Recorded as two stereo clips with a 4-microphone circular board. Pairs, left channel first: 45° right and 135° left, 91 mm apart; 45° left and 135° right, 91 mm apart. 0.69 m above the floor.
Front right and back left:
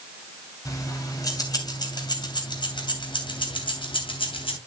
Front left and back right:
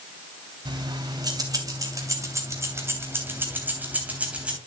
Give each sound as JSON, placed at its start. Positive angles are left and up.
{"t": 0.7, "sound": "keys jangling", "azimuth_deg": -100, "distance_m": 3.0}